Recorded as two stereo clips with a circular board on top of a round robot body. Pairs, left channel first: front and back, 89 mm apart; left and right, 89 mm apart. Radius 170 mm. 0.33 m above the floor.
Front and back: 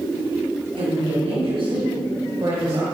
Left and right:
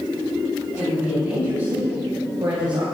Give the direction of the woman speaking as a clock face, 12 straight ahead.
5 o'clock.